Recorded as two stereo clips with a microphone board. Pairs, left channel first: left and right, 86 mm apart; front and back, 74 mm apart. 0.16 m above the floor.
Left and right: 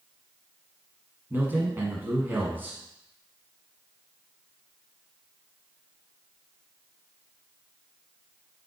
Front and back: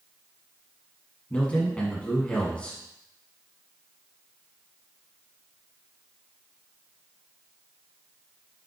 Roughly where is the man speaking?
Ahead right.